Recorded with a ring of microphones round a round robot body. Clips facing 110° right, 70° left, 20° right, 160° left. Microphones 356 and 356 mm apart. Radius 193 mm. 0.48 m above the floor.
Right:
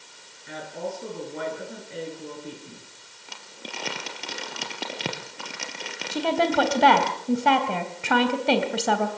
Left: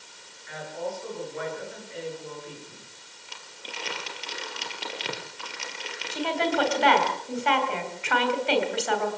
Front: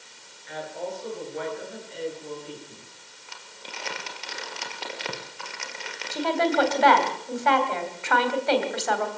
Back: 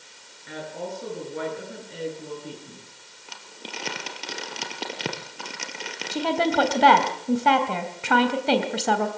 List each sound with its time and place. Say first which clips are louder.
0.5 s a woman speaking: even, even; 160° right, 10 m
3.3 s crumpling: right 4 dB, back 5 dB; 150° right, 3.5 m
6.1 s a woman speaking: right 4 dB, back 1 dB; 155° right, 3 m